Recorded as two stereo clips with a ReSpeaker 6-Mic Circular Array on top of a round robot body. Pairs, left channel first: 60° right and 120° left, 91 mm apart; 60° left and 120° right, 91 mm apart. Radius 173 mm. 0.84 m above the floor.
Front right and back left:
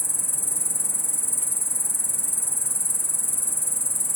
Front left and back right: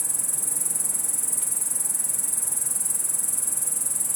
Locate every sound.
0.0 s an insect: 30° right, 1.0 m